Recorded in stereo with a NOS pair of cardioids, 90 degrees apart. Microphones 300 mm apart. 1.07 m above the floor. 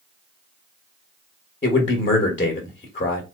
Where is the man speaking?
30° left, 1.2 m.